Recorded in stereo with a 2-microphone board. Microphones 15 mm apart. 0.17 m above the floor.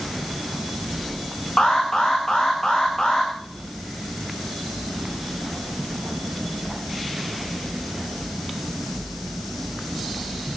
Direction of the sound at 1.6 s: 45° left (ahead or behind).